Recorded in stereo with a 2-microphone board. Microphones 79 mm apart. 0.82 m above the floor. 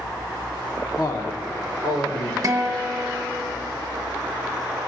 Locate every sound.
1.0 s a man speaking: 50° left (ahead or behind), 1.4 m; by 2.3 s 55° left (ahead or behind), 3 m
2.4 s a guitar: 45° right (ahead or behind), 1.1 m